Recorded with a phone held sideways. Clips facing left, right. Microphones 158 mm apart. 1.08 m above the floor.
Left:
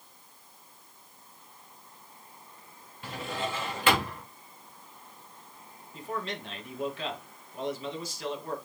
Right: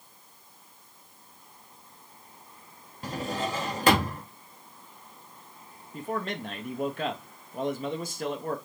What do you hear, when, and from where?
3.0 s a drawer: 40° right (ahead or behind), 0.8 m
5.9 s a man speaking: 50° right (ahead or behind), 1.0 m